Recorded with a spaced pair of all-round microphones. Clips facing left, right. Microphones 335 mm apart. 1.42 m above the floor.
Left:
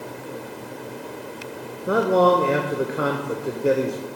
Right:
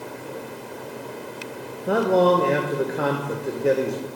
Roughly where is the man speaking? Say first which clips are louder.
Even; centre.